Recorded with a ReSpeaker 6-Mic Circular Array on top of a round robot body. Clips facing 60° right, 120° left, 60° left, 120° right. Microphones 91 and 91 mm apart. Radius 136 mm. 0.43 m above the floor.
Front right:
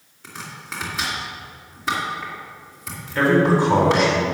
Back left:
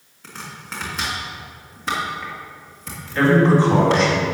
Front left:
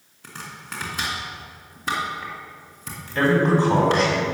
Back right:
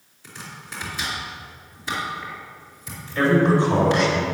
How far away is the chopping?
About 3 m.